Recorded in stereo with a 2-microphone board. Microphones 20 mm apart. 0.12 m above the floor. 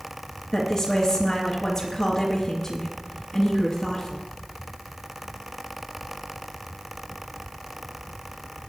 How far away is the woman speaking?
About 1.9 m.